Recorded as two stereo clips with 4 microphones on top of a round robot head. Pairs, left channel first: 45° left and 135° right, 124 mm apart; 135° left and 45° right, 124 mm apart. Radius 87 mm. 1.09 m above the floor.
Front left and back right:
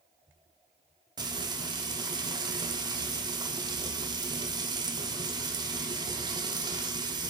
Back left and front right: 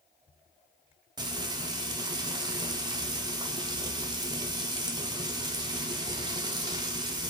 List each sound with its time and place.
1.2 s frying: 90° right, 0.8 m